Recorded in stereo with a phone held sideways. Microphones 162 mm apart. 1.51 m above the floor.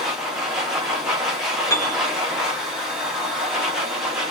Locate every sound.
0.0 s a machine running: 5° right (ahead or behind), 1.0 m
1.7 s a piano: 20° left (ahead or behind), 1.0 m